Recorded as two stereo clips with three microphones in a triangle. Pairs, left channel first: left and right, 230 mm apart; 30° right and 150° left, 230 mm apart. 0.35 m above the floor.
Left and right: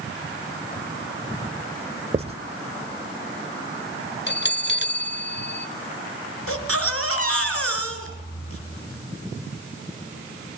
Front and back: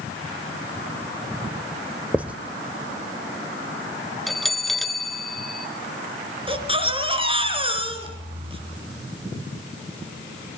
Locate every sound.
2.1 s writing: 130° right, 1.1 m
4.3 s a bell: 60° left, 0.7 m
6.5 s a baby crying: 85° left, 4 m